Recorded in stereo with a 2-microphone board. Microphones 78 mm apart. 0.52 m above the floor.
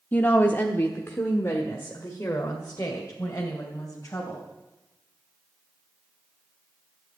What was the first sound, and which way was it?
A woman speaking, 25° left (ahead or behind).